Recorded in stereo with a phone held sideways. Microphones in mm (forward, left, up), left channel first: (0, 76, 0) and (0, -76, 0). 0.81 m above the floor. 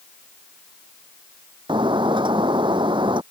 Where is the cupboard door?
I don't hear a cupboard door.